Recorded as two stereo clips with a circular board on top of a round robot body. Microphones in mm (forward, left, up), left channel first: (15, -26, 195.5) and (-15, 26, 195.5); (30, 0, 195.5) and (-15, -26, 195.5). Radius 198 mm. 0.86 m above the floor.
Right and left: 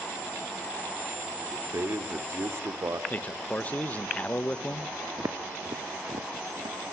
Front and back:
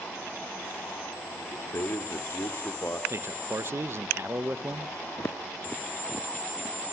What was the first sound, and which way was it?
A man speaking, 80° left.